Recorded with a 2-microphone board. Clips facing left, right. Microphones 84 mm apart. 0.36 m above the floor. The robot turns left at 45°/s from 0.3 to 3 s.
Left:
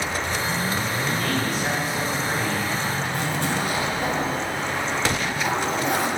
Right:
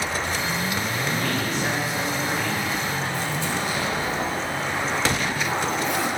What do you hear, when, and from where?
1.1 s a man speaking: 145° right, 3.5 m; by 3.0 s 125° left, 3.5 m
3.1 s a zipper: 60° left (ahead or behind), 2 m